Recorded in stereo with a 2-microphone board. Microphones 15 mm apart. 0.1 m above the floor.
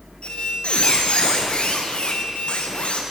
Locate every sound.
0.2 s a squeak: 90° left, 6 m